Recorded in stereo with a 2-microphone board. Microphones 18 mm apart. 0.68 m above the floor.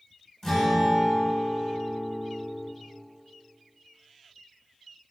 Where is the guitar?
30° left (ahead or behind), 1.0 m.